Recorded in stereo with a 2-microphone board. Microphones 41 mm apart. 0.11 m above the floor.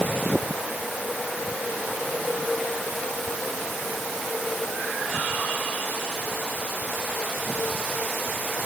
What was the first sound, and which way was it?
Only background noise.